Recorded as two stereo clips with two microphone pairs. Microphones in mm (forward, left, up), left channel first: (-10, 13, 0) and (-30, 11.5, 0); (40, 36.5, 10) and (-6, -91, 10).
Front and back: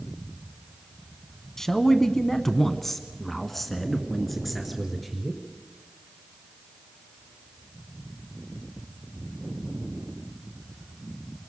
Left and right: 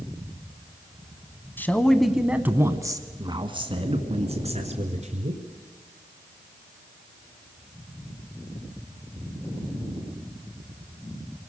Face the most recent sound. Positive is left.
turn(degrees=-85)